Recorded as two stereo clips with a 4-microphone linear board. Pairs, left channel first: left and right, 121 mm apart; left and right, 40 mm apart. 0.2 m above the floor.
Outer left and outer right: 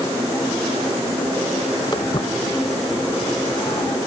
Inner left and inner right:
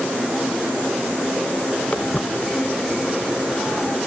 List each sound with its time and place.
1.9 s footsteps: 35° left (ahead or behind); by 4.0 s 45° left (ahead or behind)